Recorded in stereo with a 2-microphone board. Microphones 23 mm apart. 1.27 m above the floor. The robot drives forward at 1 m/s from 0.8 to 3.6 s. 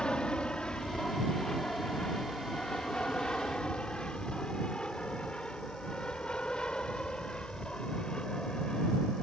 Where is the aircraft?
40° left (ahead or behind).